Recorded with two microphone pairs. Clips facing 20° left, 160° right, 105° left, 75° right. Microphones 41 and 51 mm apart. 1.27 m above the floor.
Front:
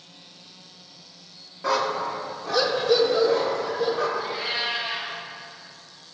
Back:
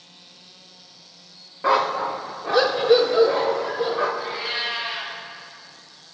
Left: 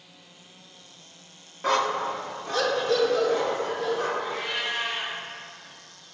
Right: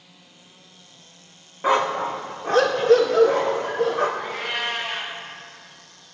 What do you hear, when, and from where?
1.6 s a dog barking: 130° right, 0.8 m; by 4.1 s 95° right, 2 m
4.2 s a cat meowing: 70° right, 4 m